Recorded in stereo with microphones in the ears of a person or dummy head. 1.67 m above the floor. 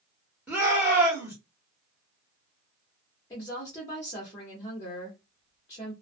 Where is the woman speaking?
20° left (ahead or behind), 0.8 m.